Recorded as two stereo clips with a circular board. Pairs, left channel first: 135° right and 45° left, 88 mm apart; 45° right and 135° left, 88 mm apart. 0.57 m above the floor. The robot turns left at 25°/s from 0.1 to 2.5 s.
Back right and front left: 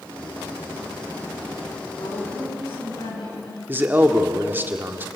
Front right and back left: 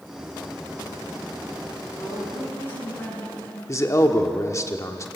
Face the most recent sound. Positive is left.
turn(degrees=-10)